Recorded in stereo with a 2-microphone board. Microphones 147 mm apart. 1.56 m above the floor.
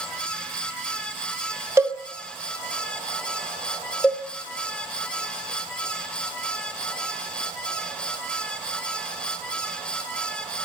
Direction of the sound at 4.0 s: 5° left (ahead or behind).